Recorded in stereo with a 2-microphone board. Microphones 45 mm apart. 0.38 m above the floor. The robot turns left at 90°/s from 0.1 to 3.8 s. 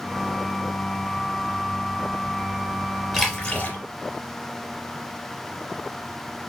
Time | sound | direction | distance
3.1 | a splash | 175° left | 4 m